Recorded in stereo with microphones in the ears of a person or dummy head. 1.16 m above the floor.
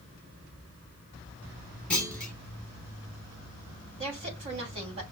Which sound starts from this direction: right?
A woman speaking, at 4.0 s.